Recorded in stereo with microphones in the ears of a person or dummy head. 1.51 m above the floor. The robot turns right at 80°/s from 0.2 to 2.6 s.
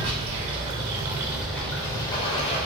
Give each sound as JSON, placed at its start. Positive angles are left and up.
{"t": 0.0, "sound": "running water", "azimuth_deg": -115, "distance_m": 0.8}